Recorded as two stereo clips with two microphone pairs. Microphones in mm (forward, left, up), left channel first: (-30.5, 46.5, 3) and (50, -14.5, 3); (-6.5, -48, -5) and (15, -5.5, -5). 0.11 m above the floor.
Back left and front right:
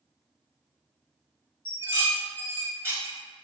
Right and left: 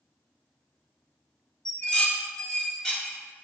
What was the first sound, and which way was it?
Dishes clattering, 70° right.